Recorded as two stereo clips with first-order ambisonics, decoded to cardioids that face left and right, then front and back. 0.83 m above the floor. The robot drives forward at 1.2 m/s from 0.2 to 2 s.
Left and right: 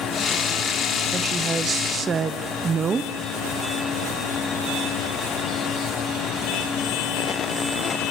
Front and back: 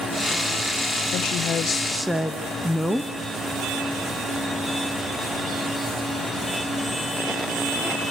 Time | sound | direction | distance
1.1 | a woman speaking | 20° right | 1.4 m